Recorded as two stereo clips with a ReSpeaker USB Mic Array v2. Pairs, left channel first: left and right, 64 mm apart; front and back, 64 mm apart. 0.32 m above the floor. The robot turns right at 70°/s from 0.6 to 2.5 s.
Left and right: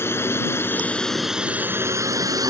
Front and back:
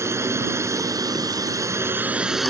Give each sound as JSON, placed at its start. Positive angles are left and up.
{"t": 0.0, "sound": "a drone", "azimuth_deg": 140}